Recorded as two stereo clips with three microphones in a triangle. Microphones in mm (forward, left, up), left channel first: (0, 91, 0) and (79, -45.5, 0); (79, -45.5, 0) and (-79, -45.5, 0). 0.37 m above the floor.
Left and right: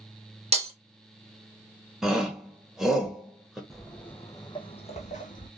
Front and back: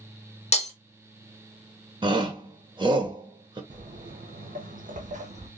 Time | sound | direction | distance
0.5 | breaking glass | 30° right | 0.8 m
2.0 | a shout | 145° right | 1.1 m
3.7 | footsteps | 150° right | 1.1 m